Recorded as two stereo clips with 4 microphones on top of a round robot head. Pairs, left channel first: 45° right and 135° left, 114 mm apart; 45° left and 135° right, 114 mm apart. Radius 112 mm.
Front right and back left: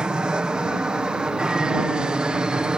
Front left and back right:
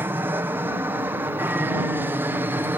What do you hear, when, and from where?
0.0 s an aircraft: 160° right